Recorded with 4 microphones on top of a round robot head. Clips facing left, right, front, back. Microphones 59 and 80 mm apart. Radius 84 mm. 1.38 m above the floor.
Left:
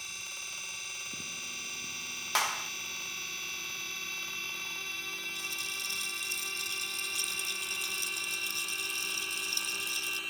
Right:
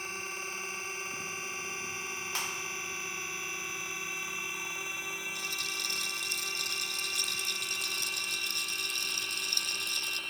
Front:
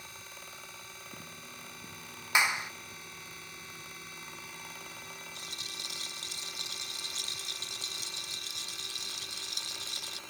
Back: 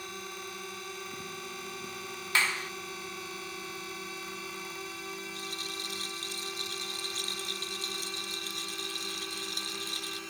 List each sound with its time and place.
0.0 s a drone: 145° right; by 10.3 s 175° left
2.4 s a clap: 75° left
5.3 s a rattle: 125° right